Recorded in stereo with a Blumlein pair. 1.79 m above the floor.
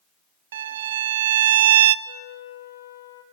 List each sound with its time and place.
0.5 s a violin: 60° right, 0.6 m
2.0 s a flute: 65° left, 1.7 m